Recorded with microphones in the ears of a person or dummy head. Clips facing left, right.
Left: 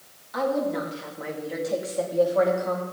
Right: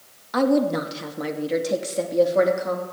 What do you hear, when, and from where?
0.3 s a woman speaking: 70° right (ahead or behind), 2 m; by 2.8 s 20° right (ahead or behind), 3 m